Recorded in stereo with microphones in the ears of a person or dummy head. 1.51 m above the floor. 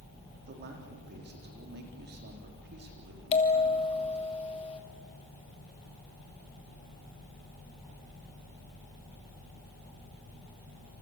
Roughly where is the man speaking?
Right.